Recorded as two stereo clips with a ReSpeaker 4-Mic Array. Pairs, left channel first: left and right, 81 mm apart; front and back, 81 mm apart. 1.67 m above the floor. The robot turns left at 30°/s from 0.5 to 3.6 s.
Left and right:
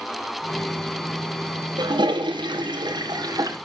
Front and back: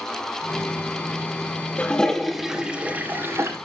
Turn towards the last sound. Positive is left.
turn(degrees=-130)